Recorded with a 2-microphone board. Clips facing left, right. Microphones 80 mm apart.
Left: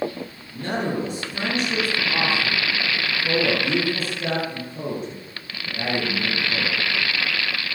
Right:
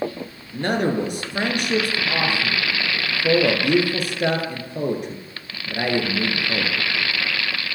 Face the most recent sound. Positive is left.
turn(degrees=-75)  # may be behind; listen again after turning